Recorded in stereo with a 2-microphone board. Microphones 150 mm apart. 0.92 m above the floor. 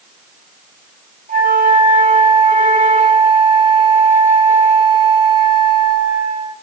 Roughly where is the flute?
Right.